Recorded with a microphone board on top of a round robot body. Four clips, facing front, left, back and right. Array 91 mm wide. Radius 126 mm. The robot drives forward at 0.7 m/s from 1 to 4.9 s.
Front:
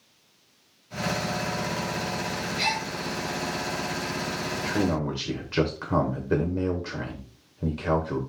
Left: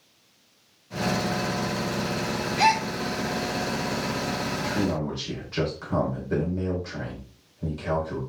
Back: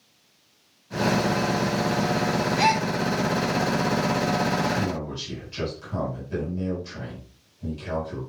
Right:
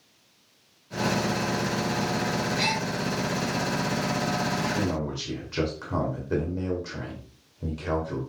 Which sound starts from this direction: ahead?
A man speaking, at 4.6 s.